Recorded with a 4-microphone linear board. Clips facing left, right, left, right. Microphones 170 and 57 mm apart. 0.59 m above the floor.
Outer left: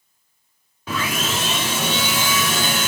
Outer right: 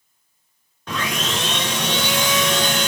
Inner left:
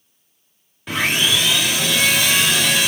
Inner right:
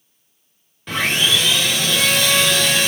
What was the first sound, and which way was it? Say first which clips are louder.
Sawing: outer left 1 dB, even; 5° left (ahead or behind).